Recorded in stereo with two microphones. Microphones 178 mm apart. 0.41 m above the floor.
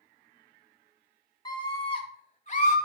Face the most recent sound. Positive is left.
turn(degrees=45)  # may be behind; listen again after turning